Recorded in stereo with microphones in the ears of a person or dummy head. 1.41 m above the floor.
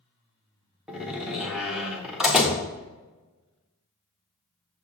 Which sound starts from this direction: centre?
A door slam, at 0.9 s.